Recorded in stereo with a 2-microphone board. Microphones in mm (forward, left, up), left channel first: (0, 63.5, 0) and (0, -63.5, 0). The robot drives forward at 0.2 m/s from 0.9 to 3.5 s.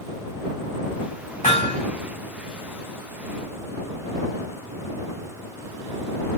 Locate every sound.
1.4 s hammering: 80° left, 2.5 m